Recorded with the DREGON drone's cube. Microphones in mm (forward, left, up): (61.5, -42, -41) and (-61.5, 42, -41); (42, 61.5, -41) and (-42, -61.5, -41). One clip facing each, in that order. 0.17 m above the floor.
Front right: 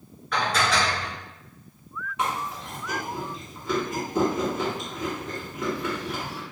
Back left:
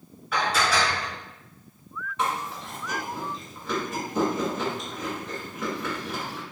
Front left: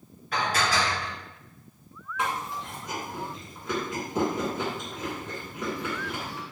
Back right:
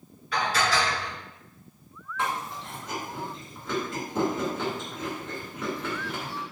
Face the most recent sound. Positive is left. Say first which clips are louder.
# even, even
turn(degrees=15)